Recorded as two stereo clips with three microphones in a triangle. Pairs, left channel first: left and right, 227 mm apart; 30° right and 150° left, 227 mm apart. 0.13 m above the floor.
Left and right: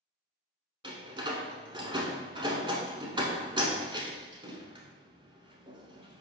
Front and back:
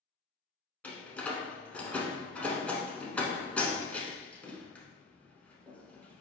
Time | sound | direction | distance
0.8 | a door slam | 105° right | 0.8 m